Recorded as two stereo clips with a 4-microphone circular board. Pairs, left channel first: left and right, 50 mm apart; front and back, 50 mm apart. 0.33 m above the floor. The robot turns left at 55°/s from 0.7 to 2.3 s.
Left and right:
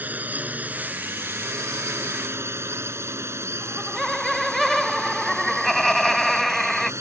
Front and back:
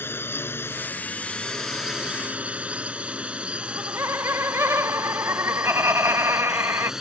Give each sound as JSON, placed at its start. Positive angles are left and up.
{"t": 0.0, "sound": "a drone", "azimuth_deg": -35}
{"t": 3.6, "sound": "laughter", "azimuth_deg": 175}